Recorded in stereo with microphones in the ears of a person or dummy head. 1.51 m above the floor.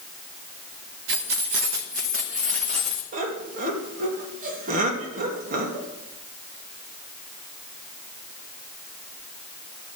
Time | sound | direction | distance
1.1 | keys jangling | 65° right (ahead or behind) | 1.0 m
3.1 | laughter | 55° right (ahead or behind) | 2.5 m